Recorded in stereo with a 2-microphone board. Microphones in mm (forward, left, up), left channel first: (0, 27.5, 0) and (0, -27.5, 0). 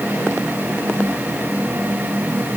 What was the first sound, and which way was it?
Only background noise.